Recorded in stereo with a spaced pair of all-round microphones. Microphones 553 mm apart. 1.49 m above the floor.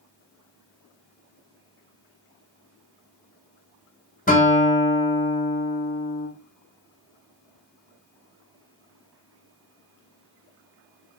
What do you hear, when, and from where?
4.3 s a guitar: 15° left (ahead or behind), 0.8 m